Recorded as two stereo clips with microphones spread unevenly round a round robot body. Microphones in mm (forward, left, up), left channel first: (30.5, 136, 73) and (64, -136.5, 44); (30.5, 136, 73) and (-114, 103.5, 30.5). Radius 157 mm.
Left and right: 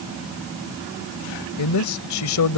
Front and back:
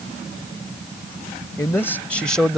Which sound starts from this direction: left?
A man speaking, at 1.6 s.